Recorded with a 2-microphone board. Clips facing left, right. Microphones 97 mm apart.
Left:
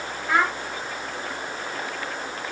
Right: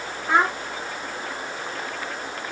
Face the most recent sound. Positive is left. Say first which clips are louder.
# right 2 dB
turn(degrees=-25)  # may be behind; listen again after turning